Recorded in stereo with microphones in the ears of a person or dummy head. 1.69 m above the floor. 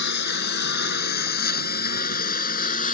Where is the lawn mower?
65° left (ahead or behind); by 2.9 s 45° left (ahead or behind).